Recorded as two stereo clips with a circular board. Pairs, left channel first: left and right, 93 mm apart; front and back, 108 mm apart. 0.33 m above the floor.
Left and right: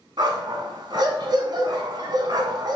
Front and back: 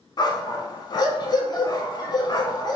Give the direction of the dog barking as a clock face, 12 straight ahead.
2 o'clock.